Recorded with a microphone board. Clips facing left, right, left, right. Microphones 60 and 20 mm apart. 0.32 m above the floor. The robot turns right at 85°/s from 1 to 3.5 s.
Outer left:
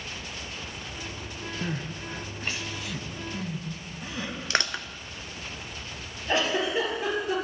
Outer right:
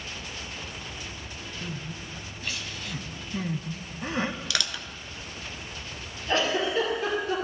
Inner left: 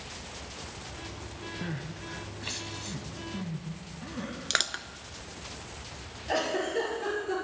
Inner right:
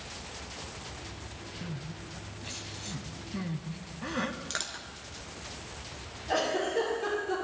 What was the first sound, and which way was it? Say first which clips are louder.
Crying: outer left 5 dB, inner left 3 dB; 60° left (ahead or behind).